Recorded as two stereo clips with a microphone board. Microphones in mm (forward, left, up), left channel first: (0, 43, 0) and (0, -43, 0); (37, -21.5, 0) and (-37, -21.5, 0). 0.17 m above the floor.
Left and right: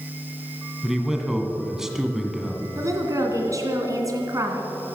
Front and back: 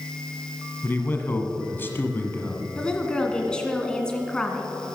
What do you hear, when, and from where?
0.8 s a man speaking: 10° right, 1.5 m
2.8 s a woman speaking: 75° right, 1.9 m